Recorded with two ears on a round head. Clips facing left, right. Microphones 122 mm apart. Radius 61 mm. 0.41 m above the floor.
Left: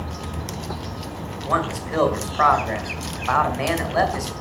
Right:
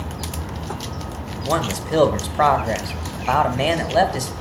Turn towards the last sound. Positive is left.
turn(degrees=-30)  # may be behind; listen again after turning